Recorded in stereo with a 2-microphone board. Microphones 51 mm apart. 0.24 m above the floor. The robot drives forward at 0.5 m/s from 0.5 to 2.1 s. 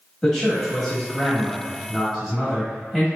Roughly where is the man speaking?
Centre.